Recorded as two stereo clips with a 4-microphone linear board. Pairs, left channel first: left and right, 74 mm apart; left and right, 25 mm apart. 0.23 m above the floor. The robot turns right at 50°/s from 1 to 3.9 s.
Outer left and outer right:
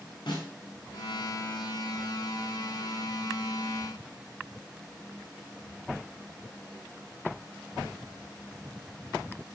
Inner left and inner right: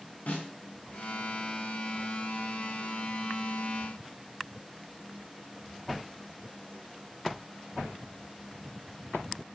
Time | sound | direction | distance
0.3 | a snare drum | 75° left (ahead or behind) | 5.5 m